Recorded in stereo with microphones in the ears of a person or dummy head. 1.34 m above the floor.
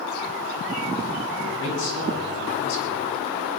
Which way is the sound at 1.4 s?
75° left (ahead or behind).